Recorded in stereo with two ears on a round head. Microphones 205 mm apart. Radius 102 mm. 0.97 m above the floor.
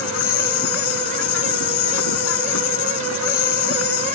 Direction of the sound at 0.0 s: 70° left (ahead or behind).